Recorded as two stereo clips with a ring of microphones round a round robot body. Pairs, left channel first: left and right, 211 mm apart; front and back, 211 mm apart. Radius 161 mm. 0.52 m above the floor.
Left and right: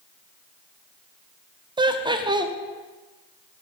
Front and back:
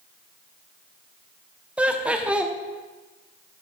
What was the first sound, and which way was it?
Laughter, 105° right.